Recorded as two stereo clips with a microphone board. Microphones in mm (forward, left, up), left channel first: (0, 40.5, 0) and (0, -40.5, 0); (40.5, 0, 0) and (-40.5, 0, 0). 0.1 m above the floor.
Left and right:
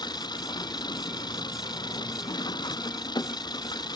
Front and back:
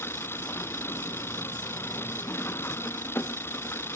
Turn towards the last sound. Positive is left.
turn(degrees=60)